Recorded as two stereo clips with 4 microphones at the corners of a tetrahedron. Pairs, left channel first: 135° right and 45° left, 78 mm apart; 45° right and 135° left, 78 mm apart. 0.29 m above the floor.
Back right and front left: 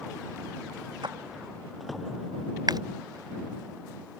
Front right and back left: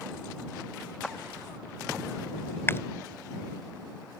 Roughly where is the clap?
Ahead left.